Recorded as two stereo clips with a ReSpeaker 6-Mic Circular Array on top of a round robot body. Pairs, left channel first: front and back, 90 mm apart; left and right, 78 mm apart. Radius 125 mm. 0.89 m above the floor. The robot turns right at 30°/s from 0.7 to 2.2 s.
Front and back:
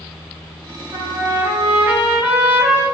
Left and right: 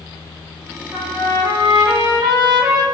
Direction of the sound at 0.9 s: 145° right.